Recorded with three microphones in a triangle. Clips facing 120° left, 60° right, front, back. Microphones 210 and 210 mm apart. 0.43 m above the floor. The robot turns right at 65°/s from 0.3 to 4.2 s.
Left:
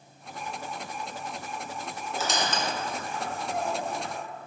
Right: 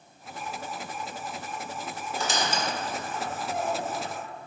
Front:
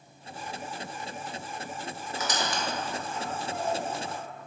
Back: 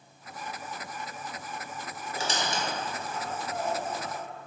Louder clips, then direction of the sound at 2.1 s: Even, even; 160° right.